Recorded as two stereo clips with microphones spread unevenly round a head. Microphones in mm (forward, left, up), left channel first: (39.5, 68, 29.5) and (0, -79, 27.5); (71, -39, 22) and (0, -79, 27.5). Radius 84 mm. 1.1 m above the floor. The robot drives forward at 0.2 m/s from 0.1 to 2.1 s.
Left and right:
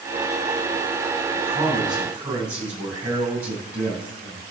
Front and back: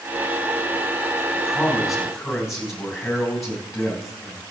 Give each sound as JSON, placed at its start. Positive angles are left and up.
{"t": 1.3, "sound": "a man speaking", "azimuth_deg": -60, "distance_m": 6.5}